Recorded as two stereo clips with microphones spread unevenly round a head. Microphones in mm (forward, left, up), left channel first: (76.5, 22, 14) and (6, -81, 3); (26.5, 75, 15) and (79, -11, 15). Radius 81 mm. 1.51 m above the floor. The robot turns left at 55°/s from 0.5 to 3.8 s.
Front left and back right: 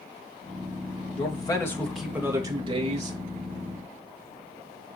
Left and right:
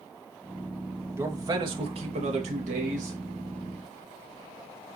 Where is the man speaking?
10° left, 2.5 m; by 3.2 s 100° right, 2.5 m.